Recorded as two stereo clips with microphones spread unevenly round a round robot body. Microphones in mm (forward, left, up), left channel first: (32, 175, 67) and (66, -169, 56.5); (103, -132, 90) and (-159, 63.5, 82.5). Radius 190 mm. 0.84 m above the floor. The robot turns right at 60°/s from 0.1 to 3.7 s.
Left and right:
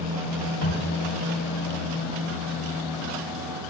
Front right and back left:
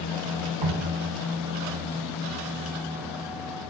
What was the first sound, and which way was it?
Dripping, 150° left.